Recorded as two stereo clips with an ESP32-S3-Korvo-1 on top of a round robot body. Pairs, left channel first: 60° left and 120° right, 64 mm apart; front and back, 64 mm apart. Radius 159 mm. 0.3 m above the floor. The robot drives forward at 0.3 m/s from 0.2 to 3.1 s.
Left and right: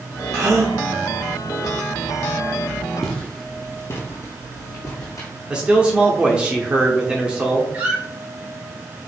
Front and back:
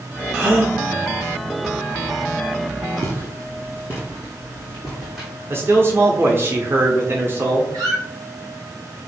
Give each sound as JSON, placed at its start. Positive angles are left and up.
{"t": 0.3, "sound": "a gasp", "azimuth_deg": -120, "distance_m": 2.0}
{"t": 3.0, "sound": "footsteps", "azimuth_deg": 145, "distance_m": 0.9}
{"t": 5.5, "sound": "a man speaking", "azimuth_deg": 175, "distance_m": 1.0}
{"t": 7.7, "sound": "a squeak", "azimuth_deg": 175, "distance_m": 2.0}